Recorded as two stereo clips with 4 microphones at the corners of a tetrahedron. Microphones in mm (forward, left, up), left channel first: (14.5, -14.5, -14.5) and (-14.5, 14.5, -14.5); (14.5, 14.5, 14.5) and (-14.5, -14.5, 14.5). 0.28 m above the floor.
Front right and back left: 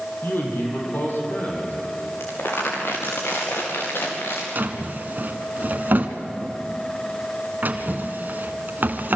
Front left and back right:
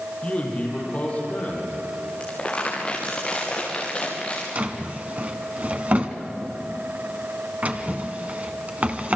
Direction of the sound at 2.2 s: 20° right.